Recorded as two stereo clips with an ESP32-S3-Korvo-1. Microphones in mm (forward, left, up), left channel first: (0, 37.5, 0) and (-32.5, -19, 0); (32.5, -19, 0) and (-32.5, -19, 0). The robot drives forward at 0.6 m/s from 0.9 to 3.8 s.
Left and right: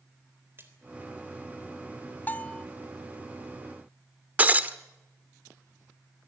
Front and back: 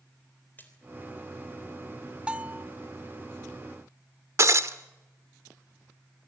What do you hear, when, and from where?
0.6 s a splash: 65° right, 3.5 m
2.3 s a bell: 115° left, 0.6 m; by 2.6 s 135° left, 0.7 m
4.4 s breaking glass: 175° right, 1.0 m